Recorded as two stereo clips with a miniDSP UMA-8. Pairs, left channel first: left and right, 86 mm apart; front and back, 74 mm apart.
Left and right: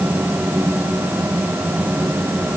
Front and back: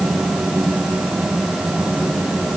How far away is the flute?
I don't hear a flute.